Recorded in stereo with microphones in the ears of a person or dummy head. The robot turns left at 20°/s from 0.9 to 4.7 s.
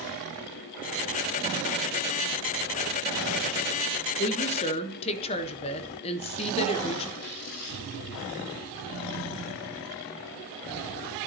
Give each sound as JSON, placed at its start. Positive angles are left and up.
{"t": 4.2, "sound": "a woman speaking", "side_deg": 40, "distance_m": 1.0}
{"t": 7.2, "sound": "tearing paper", "side_deg": 70, "distance_m": 5.0}